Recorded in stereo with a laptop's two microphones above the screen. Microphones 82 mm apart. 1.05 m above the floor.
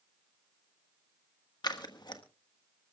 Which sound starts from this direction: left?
Scissors, at 1.6 s.